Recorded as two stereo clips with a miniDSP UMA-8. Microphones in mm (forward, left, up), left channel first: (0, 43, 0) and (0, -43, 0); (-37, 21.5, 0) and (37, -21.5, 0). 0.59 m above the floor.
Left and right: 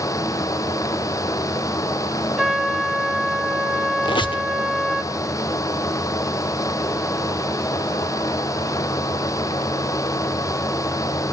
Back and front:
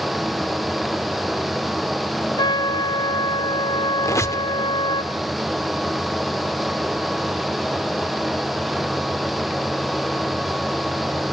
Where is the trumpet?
Straight behind, 1.0 m.